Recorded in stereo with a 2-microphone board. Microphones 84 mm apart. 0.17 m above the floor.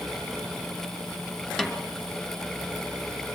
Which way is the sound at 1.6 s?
5° left (ahead or behind).